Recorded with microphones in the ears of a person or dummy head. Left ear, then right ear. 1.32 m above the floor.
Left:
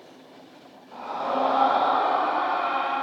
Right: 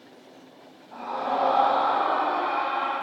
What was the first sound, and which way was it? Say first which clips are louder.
A scream: even; 10° right (ahead or behind).